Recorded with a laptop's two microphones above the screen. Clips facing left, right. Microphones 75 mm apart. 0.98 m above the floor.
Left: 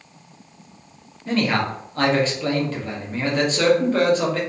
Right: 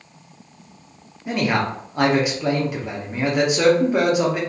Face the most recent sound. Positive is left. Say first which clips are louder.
# even
turn(degrees=-15)  # may be behind; listen again after turning